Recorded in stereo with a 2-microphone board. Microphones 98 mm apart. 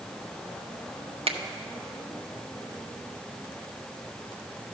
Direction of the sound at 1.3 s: 80° right.